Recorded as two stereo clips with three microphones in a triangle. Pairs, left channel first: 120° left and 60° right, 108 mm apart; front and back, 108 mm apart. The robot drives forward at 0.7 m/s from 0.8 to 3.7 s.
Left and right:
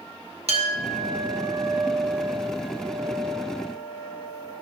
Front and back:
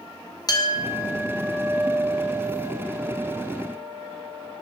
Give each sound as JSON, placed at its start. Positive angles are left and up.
{"t": 0.5, "sound": "a clink", "azimuth_deg": -55, "distance_m": 0.8}